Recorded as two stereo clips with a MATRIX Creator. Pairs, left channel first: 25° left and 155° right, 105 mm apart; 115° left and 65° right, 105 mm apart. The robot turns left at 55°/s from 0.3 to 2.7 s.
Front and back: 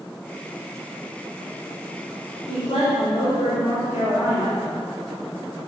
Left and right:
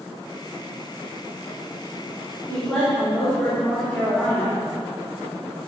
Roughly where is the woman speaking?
Ahead left.